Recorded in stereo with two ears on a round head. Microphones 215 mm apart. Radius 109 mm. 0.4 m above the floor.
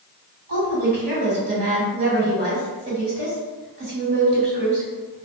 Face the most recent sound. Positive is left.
turn(degrees=-45)  # may be behind; listen again after turning